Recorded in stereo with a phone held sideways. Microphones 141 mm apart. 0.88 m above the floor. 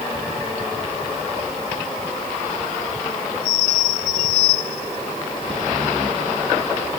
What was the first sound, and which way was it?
Only background noise.